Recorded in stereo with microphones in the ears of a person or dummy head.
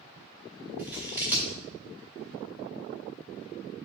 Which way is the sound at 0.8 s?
10° right (ahead or behind).